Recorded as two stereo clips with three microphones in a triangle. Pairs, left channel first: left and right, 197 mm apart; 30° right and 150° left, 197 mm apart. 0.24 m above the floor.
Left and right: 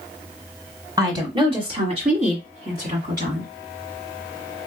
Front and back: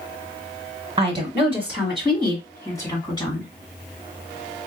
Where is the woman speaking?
150° right, 1.6 m; by 3.5 s 90° right, 2 m.